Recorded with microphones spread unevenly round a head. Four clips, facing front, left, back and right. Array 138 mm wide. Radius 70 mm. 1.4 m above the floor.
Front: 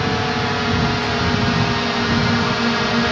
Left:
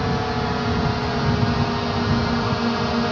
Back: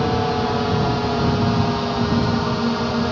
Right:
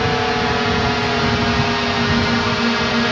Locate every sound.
0.0 s a drone: 125° right; by 3.1 s 100° right